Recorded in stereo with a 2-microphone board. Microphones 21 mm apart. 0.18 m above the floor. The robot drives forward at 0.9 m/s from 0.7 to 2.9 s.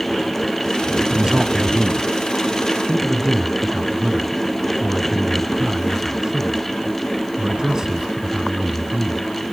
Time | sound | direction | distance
1.1 | a man speaking | 30° right (ahead or behind) | 1.5 m